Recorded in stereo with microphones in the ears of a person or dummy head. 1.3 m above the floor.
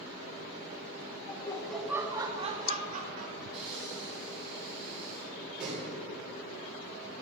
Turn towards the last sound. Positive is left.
turn(degrees=-5)  # may be behind; listen again after turning